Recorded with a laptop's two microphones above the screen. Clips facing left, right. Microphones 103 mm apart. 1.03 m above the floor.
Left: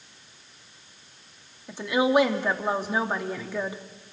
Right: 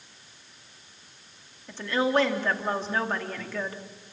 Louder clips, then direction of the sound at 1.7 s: Left 3 dB; 15° left (ahead or behind).